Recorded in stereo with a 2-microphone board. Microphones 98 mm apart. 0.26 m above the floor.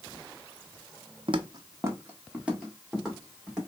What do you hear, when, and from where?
1.3 s footsteps: 65° right (ahead or behind), 0.5 m; by 3.6 s 5° right (ahead or behind), 3 m